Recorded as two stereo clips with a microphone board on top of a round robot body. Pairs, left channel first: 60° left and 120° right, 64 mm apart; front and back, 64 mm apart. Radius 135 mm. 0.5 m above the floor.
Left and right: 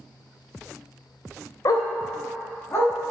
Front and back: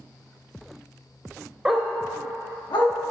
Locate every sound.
1.6 s a dog barking: 100° left, 0.6 m; by 2.9 s 5° left, 1.9 m